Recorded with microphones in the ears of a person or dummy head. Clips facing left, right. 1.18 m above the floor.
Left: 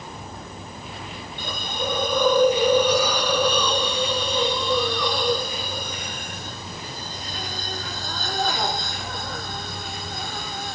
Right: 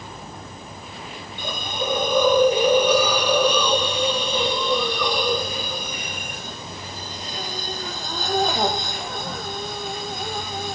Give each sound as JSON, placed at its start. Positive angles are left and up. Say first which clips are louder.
{"t": 1.4, "sound": "a hiss", "louder": "right 2 dB", "side_deg": -20, "distance_m": 3.5}